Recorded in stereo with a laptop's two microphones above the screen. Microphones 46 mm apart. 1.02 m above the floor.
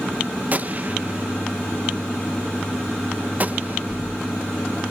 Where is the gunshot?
35° right (ahead or behind).